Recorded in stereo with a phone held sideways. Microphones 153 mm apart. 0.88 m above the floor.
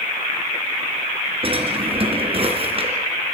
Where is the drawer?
35° right (ahead or behind), 3.5 m.